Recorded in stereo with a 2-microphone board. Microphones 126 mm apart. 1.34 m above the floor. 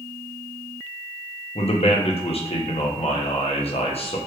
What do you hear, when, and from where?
1.6 s a man speaking: 55° left (ahead or behind), 0.7 m